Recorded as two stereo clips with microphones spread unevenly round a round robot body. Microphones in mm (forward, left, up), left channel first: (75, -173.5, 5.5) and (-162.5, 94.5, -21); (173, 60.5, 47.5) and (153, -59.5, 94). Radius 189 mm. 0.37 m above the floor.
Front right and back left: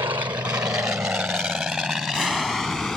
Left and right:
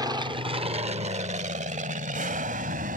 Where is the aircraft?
165° right; by 3.0 s 135° right.